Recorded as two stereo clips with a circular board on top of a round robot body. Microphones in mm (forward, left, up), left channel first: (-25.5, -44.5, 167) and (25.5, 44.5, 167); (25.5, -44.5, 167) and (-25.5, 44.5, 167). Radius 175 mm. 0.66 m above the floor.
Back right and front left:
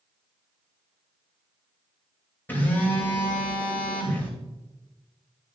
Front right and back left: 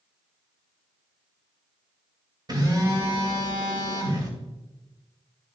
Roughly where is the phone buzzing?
Behind.